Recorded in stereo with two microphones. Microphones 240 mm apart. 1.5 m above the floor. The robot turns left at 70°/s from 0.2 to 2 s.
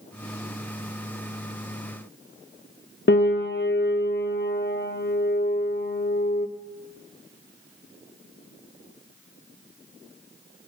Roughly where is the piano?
Left.